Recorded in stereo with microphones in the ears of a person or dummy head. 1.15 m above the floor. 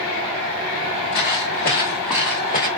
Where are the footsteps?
25° left (ahead or behind), 1.2 m; by 2.7 s 5° right (ahead or behind), 1.3 m.